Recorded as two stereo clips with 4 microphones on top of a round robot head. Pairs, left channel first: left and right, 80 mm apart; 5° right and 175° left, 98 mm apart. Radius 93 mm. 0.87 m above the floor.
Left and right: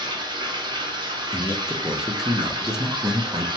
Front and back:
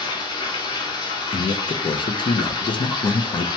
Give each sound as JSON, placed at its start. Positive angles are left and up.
{"t": 0.0, "sound": "running water", "azimuth_deg": -55, "distance_m": 0.8}
{"t": 1.3, "sound": "a man speaking", "azimuth_deg": -10, "distance_m": 0.5}